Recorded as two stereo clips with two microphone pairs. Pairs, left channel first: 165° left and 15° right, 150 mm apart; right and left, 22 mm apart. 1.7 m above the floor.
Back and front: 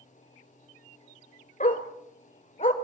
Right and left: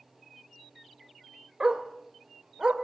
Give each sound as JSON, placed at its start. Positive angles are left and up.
{"t": 1.6, "sound": "a dog barking", "azimuth_deg": 145, "distance_m": 3.0}